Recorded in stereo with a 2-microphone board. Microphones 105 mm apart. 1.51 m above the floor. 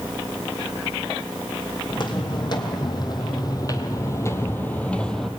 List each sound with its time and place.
1.9 s footsteps: 45° left (ahead or behind), 3 m; by 5.3 s 5° left (ahead or behind), 1.7 m